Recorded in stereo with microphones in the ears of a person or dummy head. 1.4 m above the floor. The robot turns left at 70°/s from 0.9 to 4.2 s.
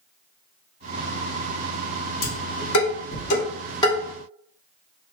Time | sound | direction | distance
2.2 | dishes clattering | 45° left (ahead or behind) | 2 m